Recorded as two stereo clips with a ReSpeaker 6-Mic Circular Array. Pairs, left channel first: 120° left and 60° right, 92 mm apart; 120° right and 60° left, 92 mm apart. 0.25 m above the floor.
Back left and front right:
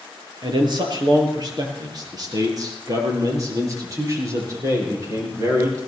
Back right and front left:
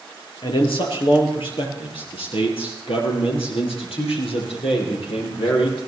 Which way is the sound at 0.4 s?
95° right.